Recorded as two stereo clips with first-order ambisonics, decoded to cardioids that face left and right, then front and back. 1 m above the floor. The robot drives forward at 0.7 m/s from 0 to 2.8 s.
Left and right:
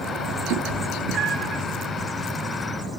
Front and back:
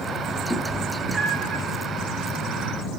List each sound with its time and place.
0.5 s a cat meowing: 90° right, 0.6 m; by 1.6 s 140° right, 1.0 m